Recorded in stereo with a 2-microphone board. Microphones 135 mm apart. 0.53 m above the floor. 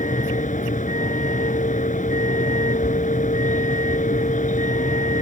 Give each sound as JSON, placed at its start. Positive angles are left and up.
{"t": 0.0, "sound": "a vehicle", "side_deg": 70}